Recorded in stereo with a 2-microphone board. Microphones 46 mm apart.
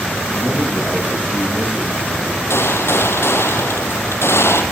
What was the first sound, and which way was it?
A man speaking, 25° right (ahead or behind).